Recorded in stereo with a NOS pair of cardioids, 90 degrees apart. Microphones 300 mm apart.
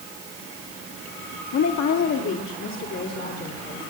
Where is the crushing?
No crushing in this recording.